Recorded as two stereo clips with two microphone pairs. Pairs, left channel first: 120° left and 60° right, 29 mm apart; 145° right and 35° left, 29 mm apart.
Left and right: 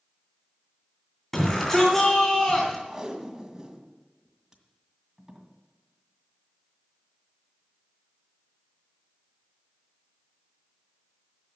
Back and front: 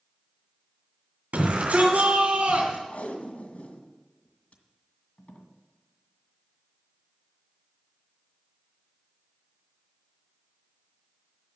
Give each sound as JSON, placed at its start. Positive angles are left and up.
{"t": 1.3, "sound": "a shout", "azimuth_deg": 45, "distance_m": 2.5}
{"t": 2.9, "sound": "tape being pulled", "azimuth_deg": -130, "distance_m": 1.9}